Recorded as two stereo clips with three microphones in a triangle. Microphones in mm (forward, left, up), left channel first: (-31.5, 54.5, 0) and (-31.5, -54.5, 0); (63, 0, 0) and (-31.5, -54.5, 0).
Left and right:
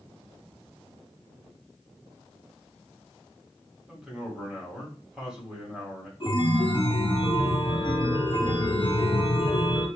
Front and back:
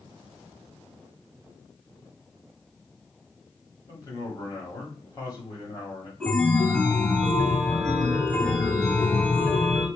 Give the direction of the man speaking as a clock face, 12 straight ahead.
12 o'clock.